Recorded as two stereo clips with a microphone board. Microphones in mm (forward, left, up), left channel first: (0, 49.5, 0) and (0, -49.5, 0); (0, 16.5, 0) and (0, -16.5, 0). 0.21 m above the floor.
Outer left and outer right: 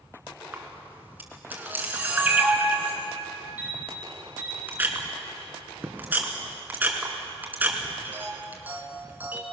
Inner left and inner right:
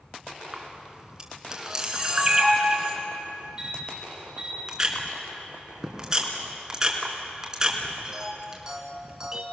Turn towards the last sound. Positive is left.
turn(degrees=-20)  # may be behind; listen again after turning